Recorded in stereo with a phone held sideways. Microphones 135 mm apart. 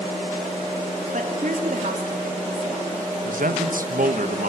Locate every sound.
1.1 s a woman speaking: 70° right (ahead or behind), 3.5 m
3.2 s a man speaking: 75° right (ahead or behind), 1.5 m